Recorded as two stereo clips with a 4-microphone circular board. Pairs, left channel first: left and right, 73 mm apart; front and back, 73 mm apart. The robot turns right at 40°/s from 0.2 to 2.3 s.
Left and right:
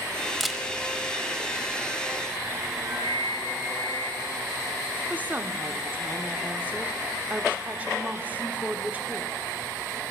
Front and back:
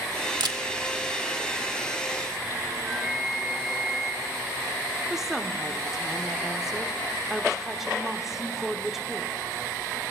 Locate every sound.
0.4 s a camera shutter: straight behind, 0.8 m; by 0.6 s 170° right, 0.8 m
2.8 s a flute: 95° right, 1.9 m
5.1 s a woman speaking: 105° right, 0.9 m